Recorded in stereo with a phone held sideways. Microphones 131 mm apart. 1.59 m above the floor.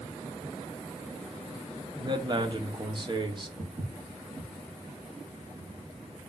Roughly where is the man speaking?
Right.